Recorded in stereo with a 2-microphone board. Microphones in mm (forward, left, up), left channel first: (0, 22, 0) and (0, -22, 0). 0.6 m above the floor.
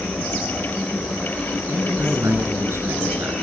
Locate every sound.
1.7 s a man speaking: 85° right, 9.5 m